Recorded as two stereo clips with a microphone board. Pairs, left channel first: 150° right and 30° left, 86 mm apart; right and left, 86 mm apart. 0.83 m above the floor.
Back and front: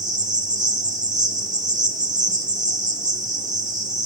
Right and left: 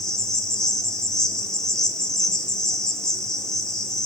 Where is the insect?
5° right, 0.9 m.